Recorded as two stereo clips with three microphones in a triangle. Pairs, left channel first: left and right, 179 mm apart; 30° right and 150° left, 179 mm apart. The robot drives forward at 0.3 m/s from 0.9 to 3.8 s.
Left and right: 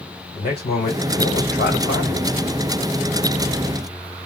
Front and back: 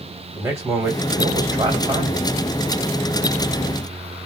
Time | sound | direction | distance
0.3 | a man speaking | 75° left | 2.5 m